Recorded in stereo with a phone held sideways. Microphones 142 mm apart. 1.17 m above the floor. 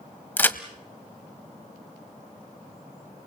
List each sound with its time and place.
0.4 s a crack: 15° left (ahead or behind), 1.0 m